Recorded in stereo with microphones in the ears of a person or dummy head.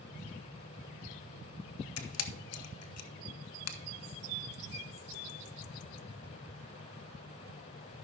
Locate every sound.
2.0 s a camera shutter: 75° left (ahead or behind), 1.0 m